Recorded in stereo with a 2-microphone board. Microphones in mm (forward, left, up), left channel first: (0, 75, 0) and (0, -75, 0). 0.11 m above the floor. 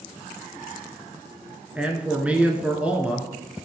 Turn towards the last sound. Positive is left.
turn(degrees=-10)  # may be behind; listen again after turning